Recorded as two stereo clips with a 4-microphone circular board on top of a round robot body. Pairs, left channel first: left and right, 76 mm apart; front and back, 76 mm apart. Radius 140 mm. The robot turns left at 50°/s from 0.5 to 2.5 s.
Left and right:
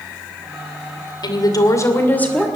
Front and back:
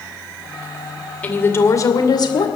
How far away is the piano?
I don't hear a piano.